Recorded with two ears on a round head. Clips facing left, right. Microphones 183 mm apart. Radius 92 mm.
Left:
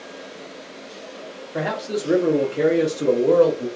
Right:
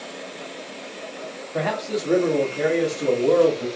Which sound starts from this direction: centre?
A man speaking, at 1.5 s.